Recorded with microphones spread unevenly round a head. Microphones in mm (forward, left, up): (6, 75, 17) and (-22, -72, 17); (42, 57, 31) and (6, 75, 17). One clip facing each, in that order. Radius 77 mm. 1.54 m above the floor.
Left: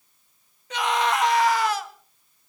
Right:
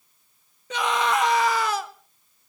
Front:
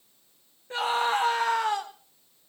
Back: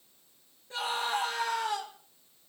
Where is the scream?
100° right, 1.2 m.